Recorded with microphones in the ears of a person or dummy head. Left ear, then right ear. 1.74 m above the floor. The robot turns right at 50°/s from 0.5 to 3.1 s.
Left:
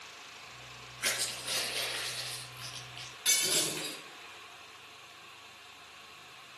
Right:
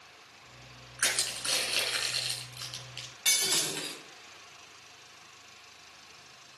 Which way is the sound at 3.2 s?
30° right (ahead or behind).